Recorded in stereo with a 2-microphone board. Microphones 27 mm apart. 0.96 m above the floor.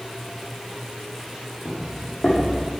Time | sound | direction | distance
1.6 | footsteps | 65° left (ahead or behind) | 2.5 m